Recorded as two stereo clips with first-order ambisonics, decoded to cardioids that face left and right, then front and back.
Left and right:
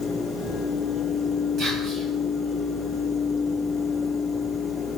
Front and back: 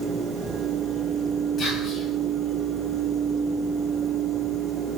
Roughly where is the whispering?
Ahead right.